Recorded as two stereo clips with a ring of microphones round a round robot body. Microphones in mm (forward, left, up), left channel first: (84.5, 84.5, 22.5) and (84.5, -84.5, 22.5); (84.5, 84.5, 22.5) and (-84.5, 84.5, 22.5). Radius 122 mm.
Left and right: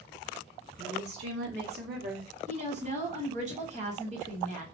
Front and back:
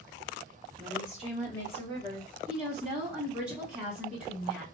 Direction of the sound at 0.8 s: 105° right.